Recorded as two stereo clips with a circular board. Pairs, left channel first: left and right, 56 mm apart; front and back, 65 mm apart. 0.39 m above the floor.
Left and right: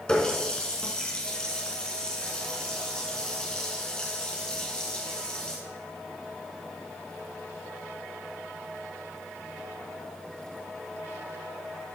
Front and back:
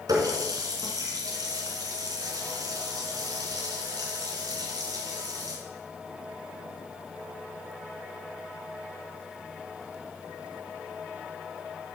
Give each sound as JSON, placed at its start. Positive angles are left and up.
{"t": 0.1, "sound": "a running tap", "azimuth_deg": 165, "distance_m": 3.0}